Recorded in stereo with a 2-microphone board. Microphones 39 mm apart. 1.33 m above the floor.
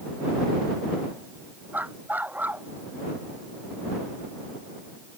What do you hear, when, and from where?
1.7 s a dog barking: 50° right (ahead or behind)